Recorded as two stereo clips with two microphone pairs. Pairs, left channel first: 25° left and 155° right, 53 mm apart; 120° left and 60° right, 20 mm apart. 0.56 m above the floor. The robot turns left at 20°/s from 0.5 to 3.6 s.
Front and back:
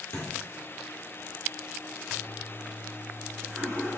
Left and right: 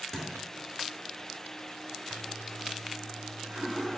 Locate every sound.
0.1 s a thud: 50° left, 1.1 m
2.1 s a toilet flushing: 25° right, 1.0 m; by 4.0 s 55° right, 1.0 m